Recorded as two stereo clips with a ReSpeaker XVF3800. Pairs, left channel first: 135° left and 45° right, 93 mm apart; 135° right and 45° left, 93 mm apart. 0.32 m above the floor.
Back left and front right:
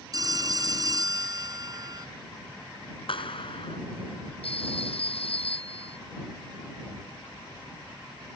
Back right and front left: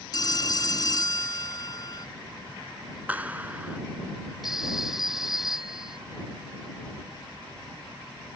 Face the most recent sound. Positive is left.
turn(degrees=130)